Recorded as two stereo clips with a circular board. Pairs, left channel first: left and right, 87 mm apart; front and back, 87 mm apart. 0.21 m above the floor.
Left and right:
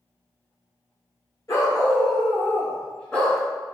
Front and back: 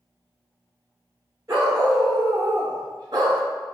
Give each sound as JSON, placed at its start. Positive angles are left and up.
{"t": 1.5, "sound": "a dog barking", "azimuth_deg": 135, "distance_m": 1.5}